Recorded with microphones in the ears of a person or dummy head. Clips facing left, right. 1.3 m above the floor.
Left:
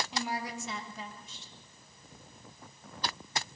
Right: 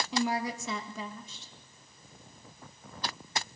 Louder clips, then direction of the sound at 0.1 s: Right 6 dB; 70° right (ahead or behind).